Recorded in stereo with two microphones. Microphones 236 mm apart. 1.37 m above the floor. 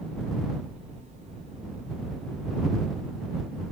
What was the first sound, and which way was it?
Only background noise.